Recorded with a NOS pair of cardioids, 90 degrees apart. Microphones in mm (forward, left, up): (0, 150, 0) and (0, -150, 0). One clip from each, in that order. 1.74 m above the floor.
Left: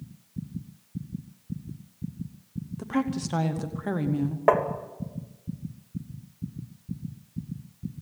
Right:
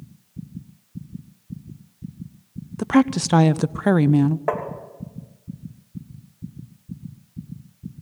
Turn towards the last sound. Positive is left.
turn(degrees=25)